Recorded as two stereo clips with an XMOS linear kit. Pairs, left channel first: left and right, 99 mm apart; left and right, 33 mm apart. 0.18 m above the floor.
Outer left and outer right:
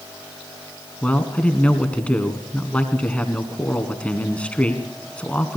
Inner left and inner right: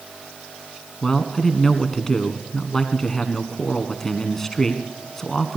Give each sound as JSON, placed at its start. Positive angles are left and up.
{"t": 1.0, "sound": "a man speaking", "side_deg": 15, "distance_m": 1.4}